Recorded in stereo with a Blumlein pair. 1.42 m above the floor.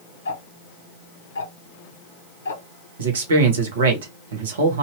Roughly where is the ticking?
Ahead left.